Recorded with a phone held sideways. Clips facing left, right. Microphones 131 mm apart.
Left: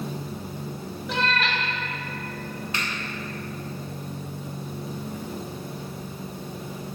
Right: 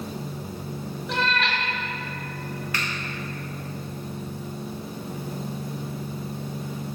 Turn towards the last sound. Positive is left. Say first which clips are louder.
# even
turn(degrees=25)  # may be behind; listen again after turning